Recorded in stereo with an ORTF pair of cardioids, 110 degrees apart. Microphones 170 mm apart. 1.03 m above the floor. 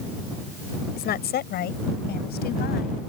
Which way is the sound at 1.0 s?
65° left.